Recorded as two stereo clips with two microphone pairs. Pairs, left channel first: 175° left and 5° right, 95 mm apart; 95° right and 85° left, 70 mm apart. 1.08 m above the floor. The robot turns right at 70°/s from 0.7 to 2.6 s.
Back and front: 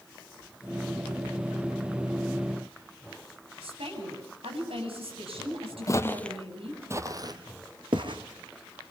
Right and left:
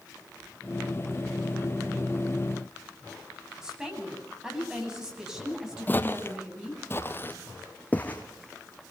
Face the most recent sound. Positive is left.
turn(degrees=-25)